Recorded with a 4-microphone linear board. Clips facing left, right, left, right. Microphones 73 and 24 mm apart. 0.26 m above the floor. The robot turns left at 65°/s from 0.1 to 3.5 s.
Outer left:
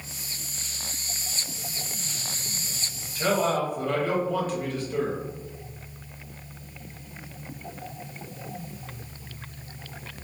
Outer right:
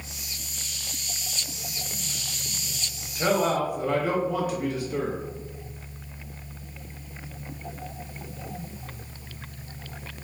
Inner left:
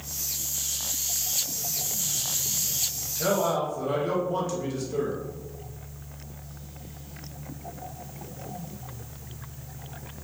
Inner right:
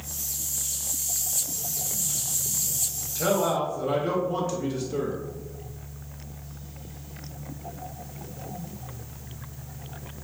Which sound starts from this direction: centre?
A man speaking, at 3.1 s.